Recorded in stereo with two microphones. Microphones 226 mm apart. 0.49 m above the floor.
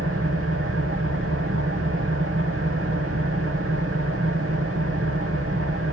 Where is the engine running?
80° right, 2.0 m.